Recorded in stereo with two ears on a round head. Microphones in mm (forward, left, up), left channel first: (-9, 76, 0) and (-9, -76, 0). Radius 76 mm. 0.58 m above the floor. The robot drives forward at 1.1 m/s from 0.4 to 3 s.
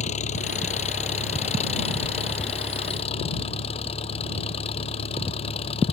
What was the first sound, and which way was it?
An engine running, 45° left (ahead or behind).